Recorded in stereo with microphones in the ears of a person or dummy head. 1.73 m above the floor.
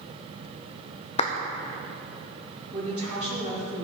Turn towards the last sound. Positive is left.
turn(degrees=-30)  # may be behind; listen again after turning